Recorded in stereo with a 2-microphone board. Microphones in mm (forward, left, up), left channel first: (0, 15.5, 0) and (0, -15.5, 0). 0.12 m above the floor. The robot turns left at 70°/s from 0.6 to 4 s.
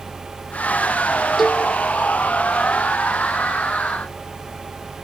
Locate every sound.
1.4 s a cowbell: 5° left (ahead or behind), 0.9 m; by 1.6 s 20° left (ahead or behind), 0.9 m